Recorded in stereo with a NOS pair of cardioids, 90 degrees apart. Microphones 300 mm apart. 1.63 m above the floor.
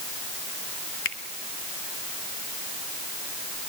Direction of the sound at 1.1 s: 45° left.